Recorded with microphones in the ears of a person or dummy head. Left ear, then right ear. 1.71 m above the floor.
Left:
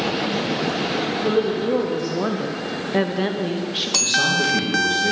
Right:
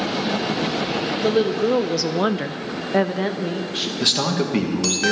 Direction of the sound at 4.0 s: 30° right (ahead or behind).